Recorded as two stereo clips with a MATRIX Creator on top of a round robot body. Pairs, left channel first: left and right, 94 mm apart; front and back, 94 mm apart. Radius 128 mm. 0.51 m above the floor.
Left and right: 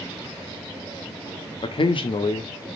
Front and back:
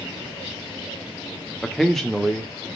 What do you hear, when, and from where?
1.6 s a man speaking: 85° left, 1.1 m